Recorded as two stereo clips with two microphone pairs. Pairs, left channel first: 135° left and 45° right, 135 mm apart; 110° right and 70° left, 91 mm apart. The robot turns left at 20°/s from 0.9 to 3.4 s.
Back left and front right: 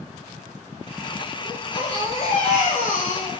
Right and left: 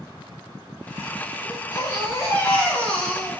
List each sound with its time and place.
1.4 s a baby crying: 165° right, 4.5 m; by 3.4 s 155° left, 4.5 m